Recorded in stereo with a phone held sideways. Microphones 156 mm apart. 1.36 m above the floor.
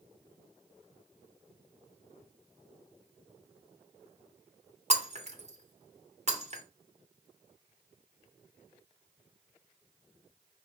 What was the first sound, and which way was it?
Breaking glass, 45° right (ahead or behind).